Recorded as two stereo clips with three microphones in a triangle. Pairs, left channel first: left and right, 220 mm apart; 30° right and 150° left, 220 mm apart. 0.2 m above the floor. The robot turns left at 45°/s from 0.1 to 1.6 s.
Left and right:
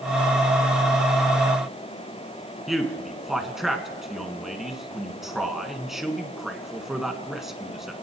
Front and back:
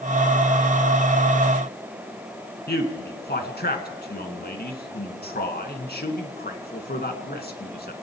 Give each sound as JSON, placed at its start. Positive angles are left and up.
{"t": 2.7, "sound": "a man speaking", "azimuth_deg": 0, "distance_m": 2.5}